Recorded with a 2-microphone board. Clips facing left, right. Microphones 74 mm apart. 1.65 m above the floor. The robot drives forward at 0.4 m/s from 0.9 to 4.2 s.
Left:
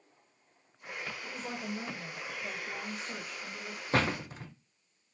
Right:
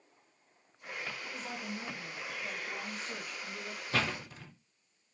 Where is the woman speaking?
25° left (ahead or behind), 1.5 m; by 3.8 s 15° left (ahead or behind), 2.5 m.